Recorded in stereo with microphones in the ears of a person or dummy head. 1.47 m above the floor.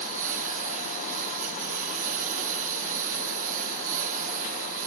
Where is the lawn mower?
45° right (ahead or behind).